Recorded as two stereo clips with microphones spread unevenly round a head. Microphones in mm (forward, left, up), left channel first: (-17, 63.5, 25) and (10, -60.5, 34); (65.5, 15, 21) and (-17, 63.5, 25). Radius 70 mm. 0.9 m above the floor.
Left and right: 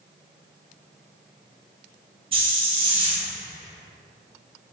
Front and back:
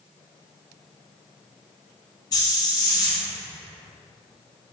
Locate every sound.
2.3 s a hiss: 50° right, 1.0 m